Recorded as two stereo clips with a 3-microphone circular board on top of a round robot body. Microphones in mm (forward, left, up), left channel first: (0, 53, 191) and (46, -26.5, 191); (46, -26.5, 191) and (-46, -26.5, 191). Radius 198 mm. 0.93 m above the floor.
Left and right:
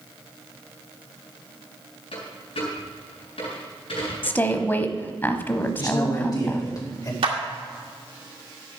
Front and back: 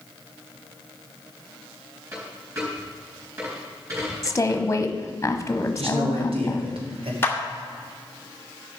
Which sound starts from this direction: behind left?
A dropped coin, at 2.1 s.